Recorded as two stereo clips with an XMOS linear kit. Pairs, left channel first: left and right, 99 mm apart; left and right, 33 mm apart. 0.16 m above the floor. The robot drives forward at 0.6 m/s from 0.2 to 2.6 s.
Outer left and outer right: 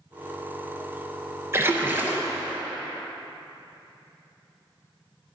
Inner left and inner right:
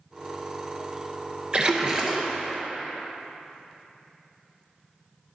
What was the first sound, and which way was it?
A splash, 30° right (ahead or behind).